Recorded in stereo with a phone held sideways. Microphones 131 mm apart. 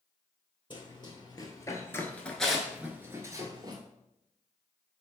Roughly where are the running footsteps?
Left.